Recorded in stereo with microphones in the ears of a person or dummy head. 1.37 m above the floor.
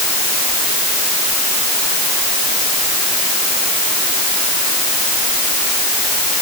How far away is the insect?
I don't hear an insect.